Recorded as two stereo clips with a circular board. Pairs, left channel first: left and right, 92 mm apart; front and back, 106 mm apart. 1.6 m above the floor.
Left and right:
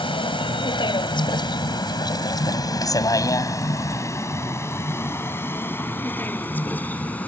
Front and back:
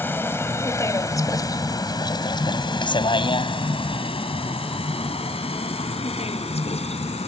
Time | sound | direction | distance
0.0 | a vehicle | 70° left | ?